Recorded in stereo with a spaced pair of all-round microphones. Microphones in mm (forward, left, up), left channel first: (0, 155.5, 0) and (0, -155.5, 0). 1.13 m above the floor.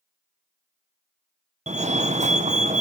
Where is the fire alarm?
20° right (ahead or behind), 1.5 m.